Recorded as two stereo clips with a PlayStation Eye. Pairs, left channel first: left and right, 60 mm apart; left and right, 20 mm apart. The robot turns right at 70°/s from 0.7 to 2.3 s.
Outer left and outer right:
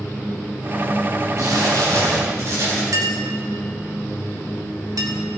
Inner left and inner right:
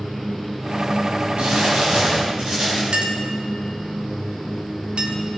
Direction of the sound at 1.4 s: 120° right.